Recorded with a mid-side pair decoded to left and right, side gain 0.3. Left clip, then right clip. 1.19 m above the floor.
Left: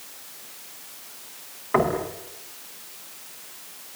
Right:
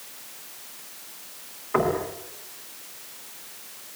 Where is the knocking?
70° left, 7.5 m.